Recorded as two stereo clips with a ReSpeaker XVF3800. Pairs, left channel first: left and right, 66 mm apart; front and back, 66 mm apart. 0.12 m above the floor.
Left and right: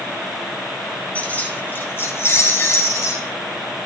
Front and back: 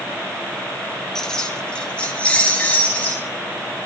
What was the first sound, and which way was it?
Keys jangling, 70° left.